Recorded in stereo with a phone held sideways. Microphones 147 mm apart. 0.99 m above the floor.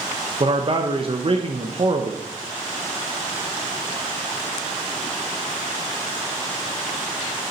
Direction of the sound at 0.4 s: 40° right (ahead or behind).